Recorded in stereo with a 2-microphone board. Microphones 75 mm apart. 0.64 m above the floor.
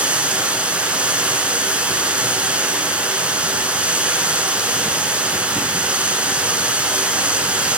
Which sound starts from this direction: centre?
Running water, at 0.0 s.